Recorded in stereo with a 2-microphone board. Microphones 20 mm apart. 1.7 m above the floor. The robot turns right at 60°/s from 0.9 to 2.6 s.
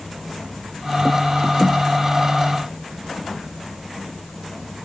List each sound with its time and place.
Only background noise.